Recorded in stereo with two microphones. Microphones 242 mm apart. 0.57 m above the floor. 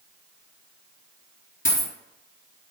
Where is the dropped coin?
45° left (ahead or behind), 1.5 m.